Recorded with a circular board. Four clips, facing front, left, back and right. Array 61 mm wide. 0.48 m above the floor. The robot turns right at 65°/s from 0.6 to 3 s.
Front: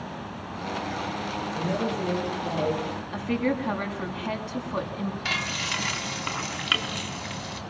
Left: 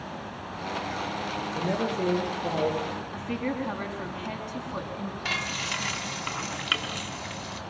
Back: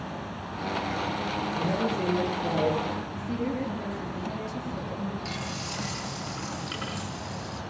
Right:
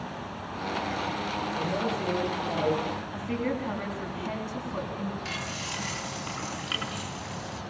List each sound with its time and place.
1.6 s a man speaking: 75° left, 10 m; by 3.0 s 170° left, 10 m
3.1 s a woman speaking: 5° left, 5 m
5.2 s frying: 30° left, 4 m